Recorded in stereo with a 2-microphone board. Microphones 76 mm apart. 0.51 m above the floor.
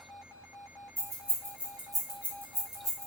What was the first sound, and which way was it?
Keys jangling, 40° right (ahead or behind).